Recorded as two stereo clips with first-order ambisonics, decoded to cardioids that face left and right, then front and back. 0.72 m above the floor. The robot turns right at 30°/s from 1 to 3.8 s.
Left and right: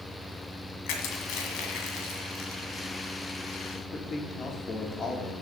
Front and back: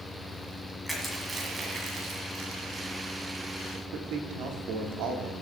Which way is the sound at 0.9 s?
90° left.